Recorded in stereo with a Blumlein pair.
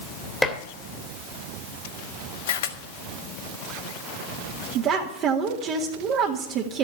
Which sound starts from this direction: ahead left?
A camera shutter, at 2.5 s.